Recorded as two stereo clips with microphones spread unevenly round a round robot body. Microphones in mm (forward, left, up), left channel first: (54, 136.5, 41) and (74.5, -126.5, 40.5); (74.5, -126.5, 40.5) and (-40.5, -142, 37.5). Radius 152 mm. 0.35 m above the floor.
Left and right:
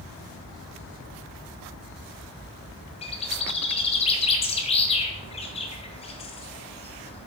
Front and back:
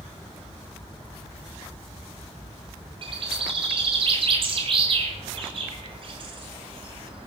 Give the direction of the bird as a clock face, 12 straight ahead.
7 o'clock.